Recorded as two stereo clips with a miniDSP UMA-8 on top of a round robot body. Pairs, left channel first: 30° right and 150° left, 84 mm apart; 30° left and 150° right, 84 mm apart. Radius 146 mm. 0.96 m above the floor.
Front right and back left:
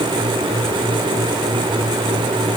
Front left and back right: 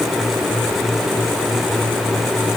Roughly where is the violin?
No violin in this recording.